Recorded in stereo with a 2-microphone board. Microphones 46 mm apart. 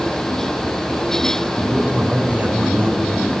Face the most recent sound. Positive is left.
turn(degrees=-35)  # may be behind; listen again after turning